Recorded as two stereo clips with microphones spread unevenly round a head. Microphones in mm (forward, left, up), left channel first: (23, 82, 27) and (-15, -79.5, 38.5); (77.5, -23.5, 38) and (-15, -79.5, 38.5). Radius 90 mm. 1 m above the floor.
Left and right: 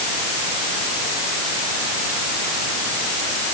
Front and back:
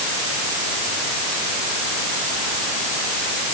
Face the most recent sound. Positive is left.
No sound to turn to.